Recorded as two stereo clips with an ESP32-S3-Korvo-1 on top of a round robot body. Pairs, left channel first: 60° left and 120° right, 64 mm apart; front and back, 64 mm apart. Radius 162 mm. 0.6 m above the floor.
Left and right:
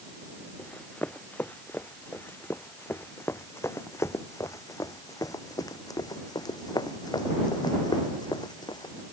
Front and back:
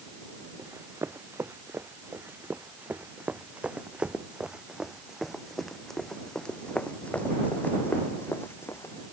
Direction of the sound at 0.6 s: 130° left.